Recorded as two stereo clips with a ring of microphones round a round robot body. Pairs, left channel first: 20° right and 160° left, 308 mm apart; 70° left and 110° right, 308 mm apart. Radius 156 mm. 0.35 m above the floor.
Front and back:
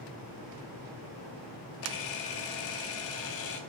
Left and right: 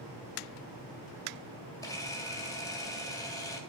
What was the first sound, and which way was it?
A camera shutter, 10° right.